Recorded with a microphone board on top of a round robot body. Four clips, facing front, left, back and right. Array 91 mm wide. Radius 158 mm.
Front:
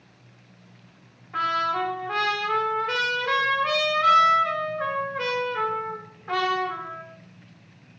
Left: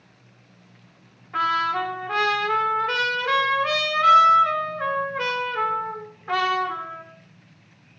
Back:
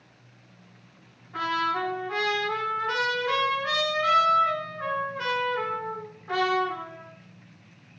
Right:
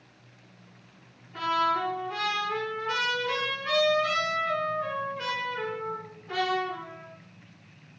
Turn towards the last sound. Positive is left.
turn(degrees=65)